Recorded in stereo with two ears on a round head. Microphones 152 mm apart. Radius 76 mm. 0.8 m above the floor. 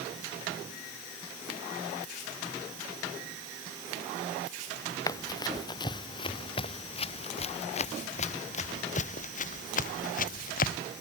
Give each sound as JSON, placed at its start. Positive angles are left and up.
{"t": 5.1, "sound": "running footsteps", "side_deg": 20}